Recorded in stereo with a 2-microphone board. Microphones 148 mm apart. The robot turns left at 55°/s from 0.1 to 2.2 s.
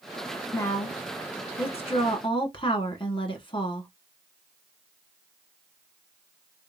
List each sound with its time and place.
0.5 s a woman speaking: 155° left, 1.4 m; by 3.9 s 65° left, 1.4 m